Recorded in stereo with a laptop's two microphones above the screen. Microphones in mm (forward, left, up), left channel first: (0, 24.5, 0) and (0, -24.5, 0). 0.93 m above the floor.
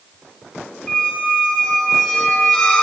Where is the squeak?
20° left (ahead or behind), 1.6 m.